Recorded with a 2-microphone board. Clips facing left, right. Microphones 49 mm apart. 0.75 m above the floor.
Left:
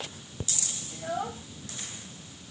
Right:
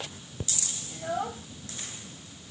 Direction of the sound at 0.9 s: 5° right (ahead or behind).